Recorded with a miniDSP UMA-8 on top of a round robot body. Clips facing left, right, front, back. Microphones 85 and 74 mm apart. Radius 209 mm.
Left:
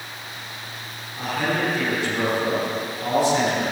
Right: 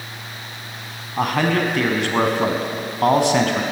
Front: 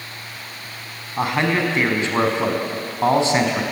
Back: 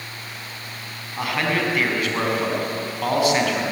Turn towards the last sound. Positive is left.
turn(degrees=-65)